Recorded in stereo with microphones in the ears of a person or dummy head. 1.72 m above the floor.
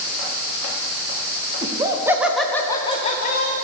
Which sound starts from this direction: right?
Laughter, at 1.6 s.